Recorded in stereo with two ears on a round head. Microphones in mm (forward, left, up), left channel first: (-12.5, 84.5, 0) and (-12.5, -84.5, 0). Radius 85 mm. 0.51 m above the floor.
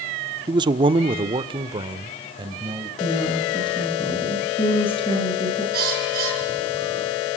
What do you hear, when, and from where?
0.5 s a man speaking: 20° right (ahead or behind), 0.7 m; by 2.9 s 25° right (ahead or behind), 2 m
3.0 s a woman speaking: 30° left (ahead or behind), 8 m
5.7 s a bird: 50° right (ahead or behind), 7.5 m